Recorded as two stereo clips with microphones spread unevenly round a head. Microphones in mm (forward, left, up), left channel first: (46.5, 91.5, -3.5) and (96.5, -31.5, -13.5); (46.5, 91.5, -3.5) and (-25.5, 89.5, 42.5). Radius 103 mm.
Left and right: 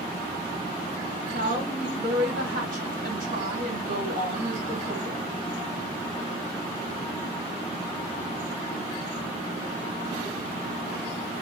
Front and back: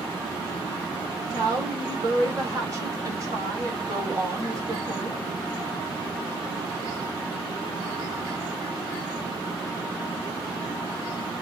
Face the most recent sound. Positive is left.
turn(degrees=-115)